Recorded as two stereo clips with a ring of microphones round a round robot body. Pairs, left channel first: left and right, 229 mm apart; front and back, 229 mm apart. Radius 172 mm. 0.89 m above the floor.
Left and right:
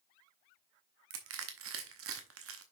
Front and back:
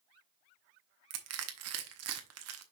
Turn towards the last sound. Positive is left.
turn(degrees=-140)